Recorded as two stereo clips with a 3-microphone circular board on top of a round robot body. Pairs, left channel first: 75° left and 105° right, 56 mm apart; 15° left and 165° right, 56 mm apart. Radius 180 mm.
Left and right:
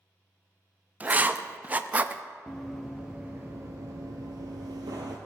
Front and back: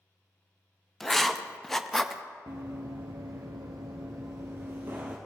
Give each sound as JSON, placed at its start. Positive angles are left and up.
{"t": 1.0, "sound": "writing", "azimuth_deg": -70, "distance_m": 0.8}
{"t": 2.5, "sound": "running footsteps", "azimuth_deg": 160, "distance_m": 1.0}